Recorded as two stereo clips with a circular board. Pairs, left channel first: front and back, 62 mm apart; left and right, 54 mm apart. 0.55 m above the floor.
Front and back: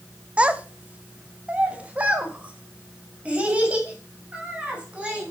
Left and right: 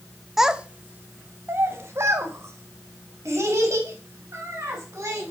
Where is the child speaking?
155° right, 0.6 m; by 5.3 s 110° right, 4 m.